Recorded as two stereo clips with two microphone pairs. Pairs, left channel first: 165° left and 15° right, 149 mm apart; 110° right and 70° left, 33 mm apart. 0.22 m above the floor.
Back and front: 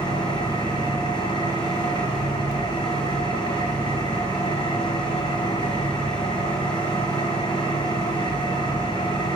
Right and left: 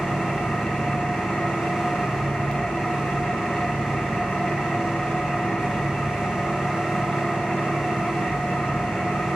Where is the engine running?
155° right, 1.4 m.